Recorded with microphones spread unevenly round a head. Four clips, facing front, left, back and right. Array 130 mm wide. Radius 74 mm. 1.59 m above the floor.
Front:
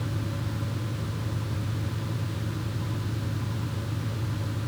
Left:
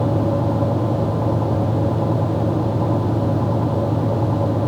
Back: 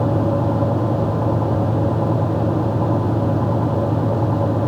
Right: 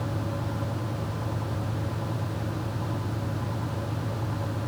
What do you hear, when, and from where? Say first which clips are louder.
0.0 s a fan: left 13 dB, back 16 dB; 140° left